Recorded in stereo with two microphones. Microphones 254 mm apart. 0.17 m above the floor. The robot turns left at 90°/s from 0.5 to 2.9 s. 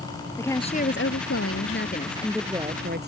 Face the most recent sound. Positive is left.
turn(degrees=-45)